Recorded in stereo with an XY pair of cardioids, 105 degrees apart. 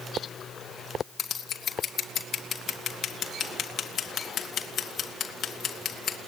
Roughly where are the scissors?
Ahead left.